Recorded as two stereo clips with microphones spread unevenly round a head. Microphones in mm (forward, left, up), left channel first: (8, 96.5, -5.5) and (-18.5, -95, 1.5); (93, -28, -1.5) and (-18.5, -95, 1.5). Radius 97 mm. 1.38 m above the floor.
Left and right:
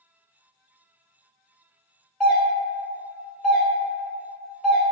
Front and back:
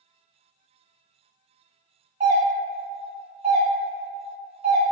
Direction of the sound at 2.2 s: 170° left.